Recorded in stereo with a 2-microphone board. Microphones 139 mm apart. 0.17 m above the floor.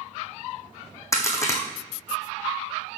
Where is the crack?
20° left (ahead or behind), 1.6 m.